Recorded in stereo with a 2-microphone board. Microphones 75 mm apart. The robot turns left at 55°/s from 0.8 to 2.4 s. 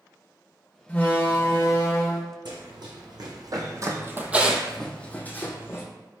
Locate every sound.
0.9 s a door slam: 145° left, 0.8 m; by 2.3 s 70° left, 0.8 m
2.5 s running footsteps: 70° right (ahead or behind), 1.4 m; by 5.8 s 35° left (ahead or behind), 1.2 m